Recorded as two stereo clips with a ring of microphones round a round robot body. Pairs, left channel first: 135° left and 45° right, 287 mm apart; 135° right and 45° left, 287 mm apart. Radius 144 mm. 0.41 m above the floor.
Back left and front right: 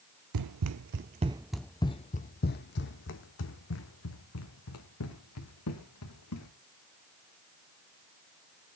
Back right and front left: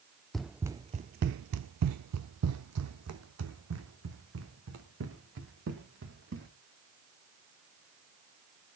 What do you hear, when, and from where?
0.3 s running footsteps: 45° right, 0.6 m; by 6.5 s 95° left, 3 m